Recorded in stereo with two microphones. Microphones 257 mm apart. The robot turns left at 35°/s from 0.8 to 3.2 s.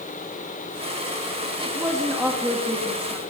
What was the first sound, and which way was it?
A woman speaking, 145° right.